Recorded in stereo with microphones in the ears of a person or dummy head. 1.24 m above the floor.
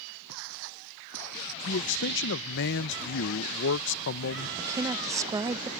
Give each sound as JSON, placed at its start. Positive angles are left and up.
{"t": 0.3, "sound": "footsteps", "side_deg": -70}
{"t": 1.6, "sound": "a man speaking", "side_deg": 60}
{"t": 4.6, "sound": "a woman speaking", "side_deg": -20}